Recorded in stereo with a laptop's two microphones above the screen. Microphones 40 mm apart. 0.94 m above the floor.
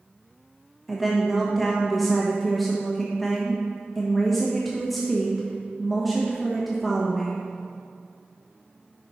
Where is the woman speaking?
Centre (ahead or behind), 1.1 m.